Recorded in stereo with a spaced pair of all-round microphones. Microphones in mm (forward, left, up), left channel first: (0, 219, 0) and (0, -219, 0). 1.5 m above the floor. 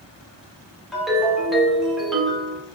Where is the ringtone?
Centre (ahead or behind), 1.1 m.